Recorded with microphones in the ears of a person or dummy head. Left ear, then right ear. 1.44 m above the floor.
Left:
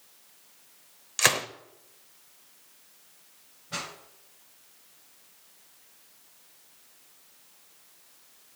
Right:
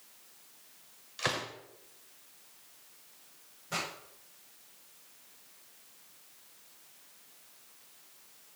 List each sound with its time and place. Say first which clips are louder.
1.2 s a gunshot: left 9 dB; 60° left (ahead or behind), 0.6 m
3.7 s a pop: even; 55° right (ahead or behind), 5 m